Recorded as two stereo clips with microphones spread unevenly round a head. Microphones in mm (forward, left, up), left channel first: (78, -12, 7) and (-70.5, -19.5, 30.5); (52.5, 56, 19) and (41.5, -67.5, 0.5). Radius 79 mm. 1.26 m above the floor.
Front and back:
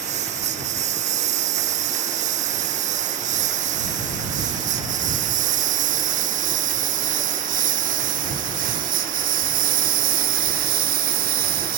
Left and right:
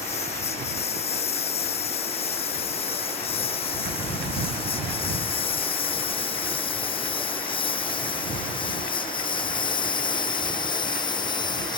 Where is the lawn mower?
135° left; by 11.8 s 150° left.